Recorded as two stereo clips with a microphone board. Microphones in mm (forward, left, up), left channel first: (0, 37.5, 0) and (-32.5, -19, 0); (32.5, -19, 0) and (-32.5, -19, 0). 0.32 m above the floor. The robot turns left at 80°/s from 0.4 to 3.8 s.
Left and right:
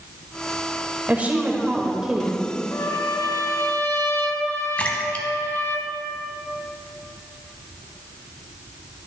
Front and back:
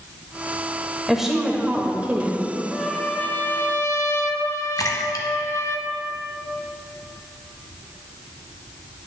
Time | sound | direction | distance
1.1 | a woman speaking | 100° right | 0.8 m
2.7 | a trumpet | 100° left | 0.6 m
4.8 | a splash | 10° right | 0.9 m